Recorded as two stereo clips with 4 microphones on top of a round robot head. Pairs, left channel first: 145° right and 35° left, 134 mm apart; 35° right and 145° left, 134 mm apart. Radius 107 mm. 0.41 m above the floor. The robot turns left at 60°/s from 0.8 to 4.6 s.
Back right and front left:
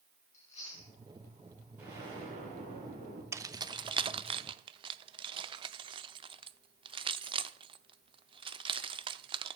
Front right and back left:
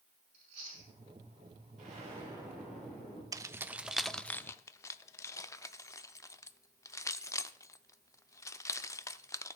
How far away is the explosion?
About 3.5 m.